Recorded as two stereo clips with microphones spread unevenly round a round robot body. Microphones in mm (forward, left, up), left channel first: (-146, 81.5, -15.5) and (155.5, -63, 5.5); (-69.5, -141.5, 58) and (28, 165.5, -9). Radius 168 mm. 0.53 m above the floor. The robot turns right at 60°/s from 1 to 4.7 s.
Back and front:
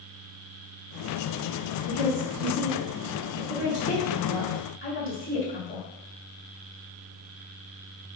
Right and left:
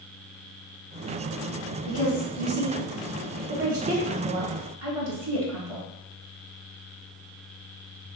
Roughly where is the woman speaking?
Right.